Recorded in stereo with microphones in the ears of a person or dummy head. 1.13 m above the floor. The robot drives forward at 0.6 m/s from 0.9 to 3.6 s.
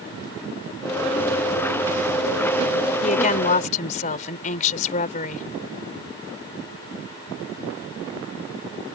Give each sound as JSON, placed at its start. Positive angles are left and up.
{"t": 3.0, "sound": "a woman speaking", "side_deg": 40}